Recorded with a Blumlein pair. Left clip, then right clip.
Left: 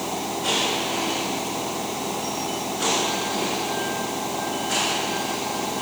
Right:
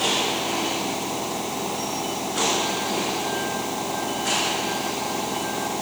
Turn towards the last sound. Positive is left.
No sound to turn to.